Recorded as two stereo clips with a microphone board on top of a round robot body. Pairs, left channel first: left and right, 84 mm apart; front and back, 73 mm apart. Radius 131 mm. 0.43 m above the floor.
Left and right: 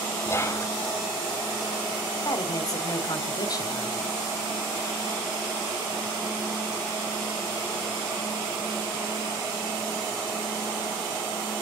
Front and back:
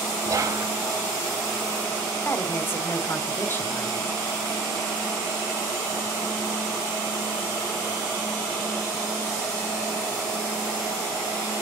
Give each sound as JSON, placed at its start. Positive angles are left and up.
{"t": 0.2, "sound": "whispering", "azimuth_deg": 145, "distance_m": 1.2}
{"t": 2.2, "sound": "a woman speaking", "azimuth_deg": 55, "distance_m": 1.5}